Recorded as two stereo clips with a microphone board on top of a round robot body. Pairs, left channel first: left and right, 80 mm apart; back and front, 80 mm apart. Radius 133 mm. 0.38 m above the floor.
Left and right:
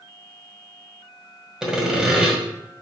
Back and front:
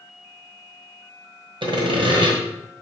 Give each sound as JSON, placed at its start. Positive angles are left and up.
{"t": 1.6, "sound": "sawing", "azimuth_deg": -5, "distance_m": 1.7}